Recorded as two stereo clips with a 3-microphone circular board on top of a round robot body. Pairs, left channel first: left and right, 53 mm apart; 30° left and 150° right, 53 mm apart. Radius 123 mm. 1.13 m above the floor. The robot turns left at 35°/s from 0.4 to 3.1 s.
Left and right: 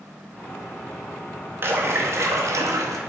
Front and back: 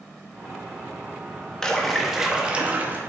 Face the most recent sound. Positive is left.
turn(degrees=-100)